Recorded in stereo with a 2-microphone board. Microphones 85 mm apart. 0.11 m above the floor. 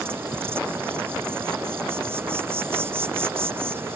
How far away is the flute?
No flute in this recording.